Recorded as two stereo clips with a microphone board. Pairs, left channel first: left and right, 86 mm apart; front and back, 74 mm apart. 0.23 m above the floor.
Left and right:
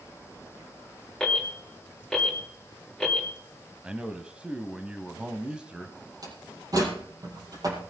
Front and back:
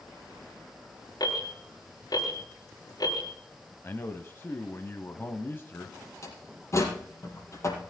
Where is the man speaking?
20° right, 1.1 m.